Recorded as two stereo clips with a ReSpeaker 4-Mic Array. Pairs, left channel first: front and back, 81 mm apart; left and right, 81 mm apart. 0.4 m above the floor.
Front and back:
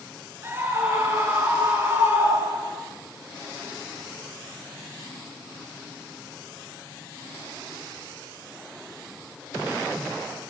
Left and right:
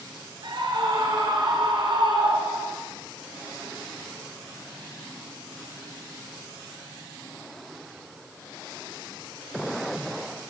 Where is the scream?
120° right, 6 m.